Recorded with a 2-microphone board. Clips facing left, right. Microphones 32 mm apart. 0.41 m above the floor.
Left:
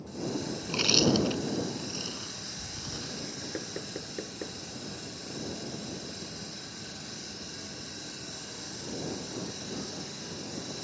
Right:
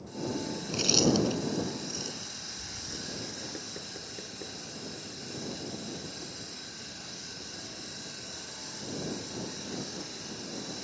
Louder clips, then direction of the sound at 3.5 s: Left 4 dB; 25° left (ahead or behind).